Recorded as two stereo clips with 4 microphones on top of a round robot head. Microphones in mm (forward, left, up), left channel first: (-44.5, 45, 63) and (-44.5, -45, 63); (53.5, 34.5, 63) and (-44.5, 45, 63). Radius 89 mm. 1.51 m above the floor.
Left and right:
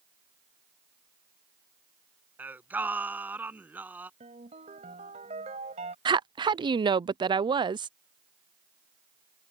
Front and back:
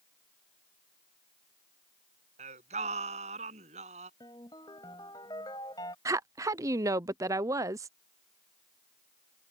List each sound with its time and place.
2.4 s singing: 160° right
4.2 s a ringtone: 70° right
6.0 s a woman speaking: 125° right